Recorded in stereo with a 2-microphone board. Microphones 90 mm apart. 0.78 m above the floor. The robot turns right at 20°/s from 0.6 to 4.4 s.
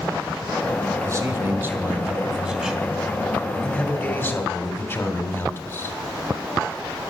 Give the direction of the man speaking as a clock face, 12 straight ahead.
1 o'clock.